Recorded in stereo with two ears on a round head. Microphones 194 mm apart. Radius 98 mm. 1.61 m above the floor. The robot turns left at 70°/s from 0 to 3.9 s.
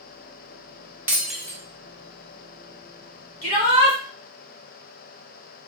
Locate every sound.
1.1 s breaking glass: 10° right (ahead or behind), 1.0 m; by 1.6 s 10° left (ahead or behind), 1.0 m
3.4 s a shout: 150° left, 1.7 m; by 4.0 s 115° left, 1.7 m